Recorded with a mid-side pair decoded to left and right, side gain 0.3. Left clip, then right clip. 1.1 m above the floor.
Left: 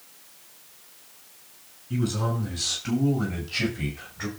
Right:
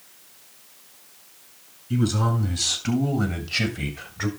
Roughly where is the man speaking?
Ahead right.